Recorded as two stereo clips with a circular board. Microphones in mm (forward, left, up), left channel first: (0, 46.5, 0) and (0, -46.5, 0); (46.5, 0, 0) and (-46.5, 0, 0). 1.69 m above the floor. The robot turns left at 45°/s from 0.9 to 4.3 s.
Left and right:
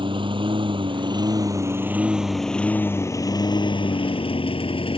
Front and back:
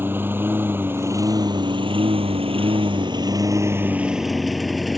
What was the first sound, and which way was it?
A lawn mower, 115° right.